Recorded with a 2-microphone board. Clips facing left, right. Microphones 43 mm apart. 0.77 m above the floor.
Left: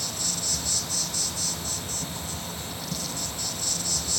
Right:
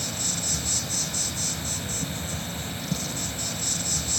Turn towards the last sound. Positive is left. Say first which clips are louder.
# right 1 dB
turn(degrees=-35)  # may be behind; listen again after turning